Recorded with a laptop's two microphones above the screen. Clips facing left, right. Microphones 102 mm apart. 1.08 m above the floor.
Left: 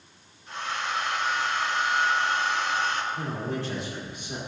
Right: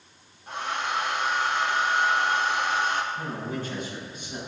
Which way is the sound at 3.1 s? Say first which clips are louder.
Left 1 dB; 80° left.